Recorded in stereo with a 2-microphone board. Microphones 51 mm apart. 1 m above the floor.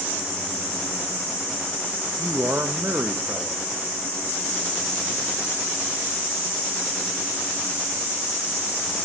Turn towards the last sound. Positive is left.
turn(degrees=-35)  # may be behind; listen again after turning